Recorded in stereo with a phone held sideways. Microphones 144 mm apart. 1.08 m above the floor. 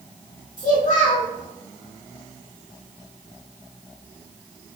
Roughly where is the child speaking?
Left.